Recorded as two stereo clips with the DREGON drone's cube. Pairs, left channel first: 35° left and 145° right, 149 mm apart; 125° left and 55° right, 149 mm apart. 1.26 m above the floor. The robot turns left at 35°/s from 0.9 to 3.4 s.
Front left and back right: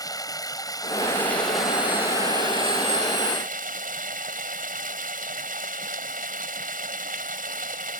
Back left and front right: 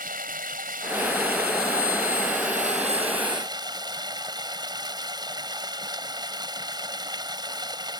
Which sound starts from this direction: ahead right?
Running water, at 0.0 s.